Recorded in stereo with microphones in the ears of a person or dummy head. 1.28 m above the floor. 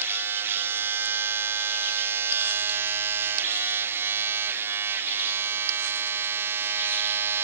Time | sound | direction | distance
0.0 | a machine running | 15° right (ahead or behind) | ?